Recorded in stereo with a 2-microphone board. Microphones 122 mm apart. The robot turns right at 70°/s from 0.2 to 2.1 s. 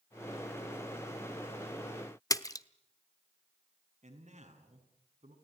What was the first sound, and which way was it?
A splash, 30° left (ahead or behind).